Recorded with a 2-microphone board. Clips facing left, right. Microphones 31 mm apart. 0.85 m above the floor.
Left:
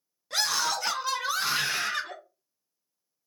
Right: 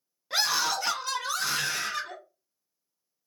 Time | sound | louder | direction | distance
0.3 | a scream | right 1 dB | 15° right (ahead or behind) | 0.8 m